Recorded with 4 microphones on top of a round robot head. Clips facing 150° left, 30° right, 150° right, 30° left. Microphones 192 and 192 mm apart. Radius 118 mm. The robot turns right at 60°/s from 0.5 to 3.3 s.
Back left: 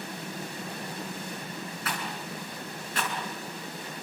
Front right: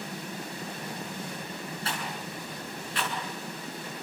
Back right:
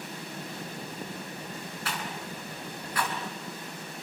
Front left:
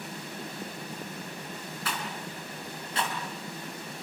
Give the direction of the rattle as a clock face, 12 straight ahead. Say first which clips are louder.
Back left 1 dB, front left 1 dB; 11 o'clock.